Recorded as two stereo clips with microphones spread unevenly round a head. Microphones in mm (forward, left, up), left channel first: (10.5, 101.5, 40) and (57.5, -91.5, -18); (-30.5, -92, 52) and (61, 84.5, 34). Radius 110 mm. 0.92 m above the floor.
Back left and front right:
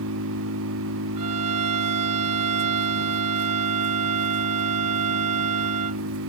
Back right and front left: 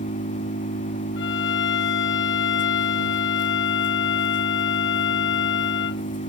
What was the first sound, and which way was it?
An engine running, 65° right.